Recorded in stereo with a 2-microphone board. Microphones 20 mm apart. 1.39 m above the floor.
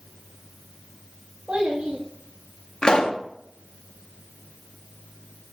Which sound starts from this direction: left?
A pop, at 2.8 s.